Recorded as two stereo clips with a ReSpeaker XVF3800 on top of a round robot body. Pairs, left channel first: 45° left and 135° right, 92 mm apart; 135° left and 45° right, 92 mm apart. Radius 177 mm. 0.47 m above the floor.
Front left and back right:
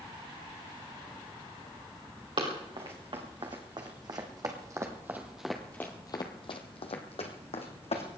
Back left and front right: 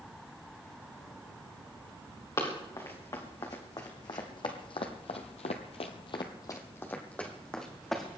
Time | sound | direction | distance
2.4 | running footsteps | 170° right | 4 m